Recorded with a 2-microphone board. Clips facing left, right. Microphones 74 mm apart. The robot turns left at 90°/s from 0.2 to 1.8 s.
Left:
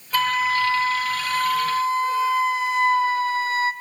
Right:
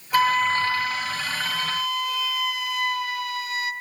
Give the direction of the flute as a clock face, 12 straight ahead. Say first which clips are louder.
Right 1 dB; 6 o'clock.